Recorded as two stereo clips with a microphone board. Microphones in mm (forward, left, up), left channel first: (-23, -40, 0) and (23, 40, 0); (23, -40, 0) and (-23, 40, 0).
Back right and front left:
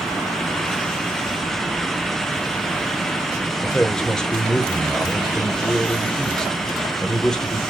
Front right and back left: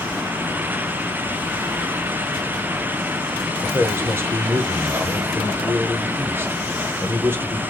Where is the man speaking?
165° left, 1.0 m.